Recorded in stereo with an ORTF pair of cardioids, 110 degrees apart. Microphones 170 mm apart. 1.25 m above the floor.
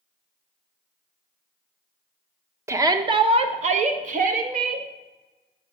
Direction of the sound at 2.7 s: 15° right.